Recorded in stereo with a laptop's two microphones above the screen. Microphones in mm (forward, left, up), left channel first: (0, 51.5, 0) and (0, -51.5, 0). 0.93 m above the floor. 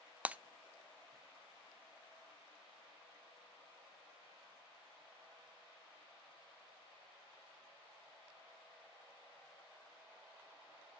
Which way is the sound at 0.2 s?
15° right (ahead or behind).